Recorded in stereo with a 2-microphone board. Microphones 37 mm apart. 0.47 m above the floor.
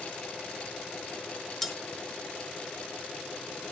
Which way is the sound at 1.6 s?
5° left (ahead or behind).